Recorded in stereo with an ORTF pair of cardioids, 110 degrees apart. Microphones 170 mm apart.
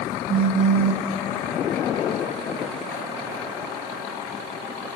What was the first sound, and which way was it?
A phone buzzing, 55° right.